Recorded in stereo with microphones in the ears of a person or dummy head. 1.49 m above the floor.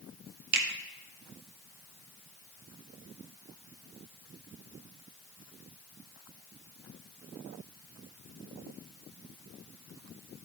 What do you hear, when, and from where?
0.5 s a finger snap: 55° right (ahead or behind), 1.5 m